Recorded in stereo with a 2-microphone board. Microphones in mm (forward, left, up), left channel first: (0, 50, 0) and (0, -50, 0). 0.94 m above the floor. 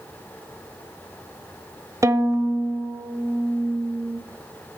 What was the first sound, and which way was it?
A violin, 30° right (ahead or behind).